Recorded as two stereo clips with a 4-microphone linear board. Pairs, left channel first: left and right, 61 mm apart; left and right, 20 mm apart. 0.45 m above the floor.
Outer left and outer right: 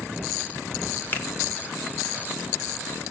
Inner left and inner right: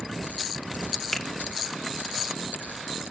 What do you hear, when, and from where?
1.1 s a finger snap: 35° left (ahead or behind), 0.8 m